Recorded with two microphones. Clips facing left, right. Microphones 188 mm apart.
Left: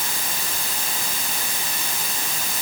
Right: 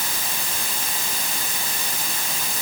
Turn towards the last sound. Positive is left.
No sound to turn to.